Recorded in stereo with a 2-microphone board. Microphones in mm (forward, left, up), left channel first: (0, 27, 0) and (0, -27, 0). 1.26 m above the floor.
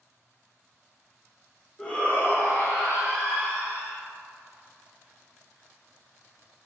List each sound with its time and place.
1.8 s a shout: 15° left (ahead or behind), 0.8 m; by 4.0 s 75° left (ahead or behind), 1.5 m